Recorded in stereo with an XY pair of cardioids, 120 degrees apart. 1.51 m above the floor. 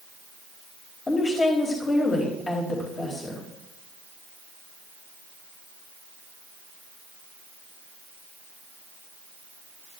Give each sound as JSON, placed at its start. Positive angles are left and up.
{"t": 1.1, "sound": "a woman speaking", "azimuth_deg": 35, "distance_m": 4.0}